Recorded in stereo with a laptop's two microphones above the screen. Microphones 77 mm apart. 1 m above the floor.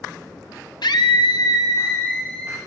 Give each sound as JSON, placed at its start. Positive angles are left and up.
{"t": 0.8, "sound": "a scream", "side_deg": 65, "distance_m": 0.9}